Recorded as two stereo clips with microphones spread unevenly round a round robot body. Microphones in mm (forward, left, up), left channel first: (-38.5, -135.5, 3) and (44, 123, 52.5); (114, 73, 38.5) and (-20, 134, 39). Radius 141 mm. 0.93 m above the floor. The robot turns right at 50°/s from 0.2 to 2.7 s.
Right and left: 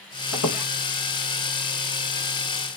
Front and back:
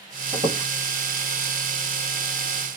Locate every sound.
0.3 s a squeak: 145° right, 1.5 m; by 0.6 s 130° right, 1.5 m